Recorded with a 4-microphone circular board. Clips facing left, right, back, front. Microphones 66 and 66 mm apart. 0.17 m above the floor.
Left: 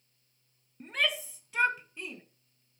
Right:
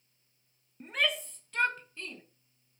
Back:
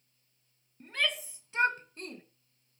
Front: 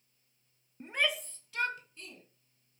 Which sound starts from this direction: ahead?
A shout, at 0.8 s.